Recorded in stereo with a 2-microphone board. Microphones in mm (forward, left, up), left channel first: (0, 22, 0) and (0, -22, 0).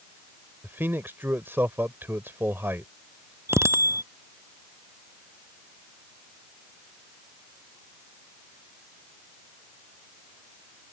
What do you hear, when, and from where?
0.6 s a man speaking: 55° right (ahead or behind)
3.5 s a bicycle bell: 85° right